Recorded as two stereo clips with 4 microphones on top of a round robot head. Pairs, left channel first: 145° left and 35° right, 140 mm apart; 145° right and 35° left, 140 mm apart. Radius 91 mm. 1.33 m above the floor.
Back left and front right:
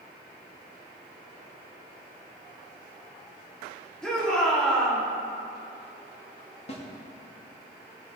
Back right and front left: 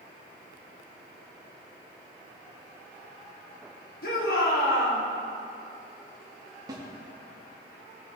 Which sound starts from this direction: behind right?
A shout, at 4.0 s.